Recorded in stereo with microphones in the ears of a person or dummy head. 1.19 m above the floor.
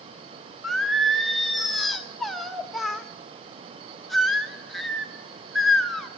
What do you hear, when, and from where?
0.6 s singing: centre (ahead or behind), 0.6 m